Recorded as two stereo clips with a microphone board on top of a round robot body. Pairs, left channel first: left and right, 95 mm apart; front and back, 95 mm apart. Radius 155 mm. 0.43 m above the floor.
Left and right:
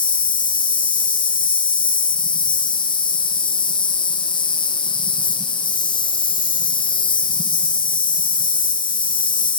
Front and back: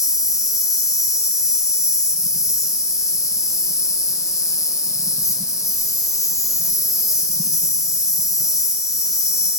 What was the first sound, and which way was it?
An insect, 55° left.